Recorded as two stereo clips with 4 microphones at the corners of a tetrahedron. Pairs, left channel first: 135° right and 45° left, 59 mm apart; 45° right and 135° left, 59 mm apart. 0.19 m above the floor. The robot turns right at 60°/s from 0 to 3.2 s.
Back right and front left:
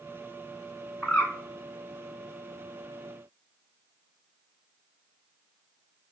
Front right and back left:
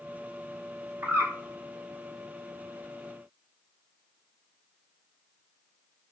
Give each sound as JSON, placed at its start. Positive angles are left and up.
{"t": 1.0, "sound": "a bird", "azimuth_deg": 145, "distance_m": 1.1}